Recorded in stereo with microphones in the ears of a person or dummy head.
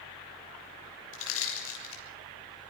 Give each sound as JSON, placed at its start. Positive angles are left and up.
{"t": 1.1, "sound": "crushing", "side_deg": 85, "distance_m": 6.5}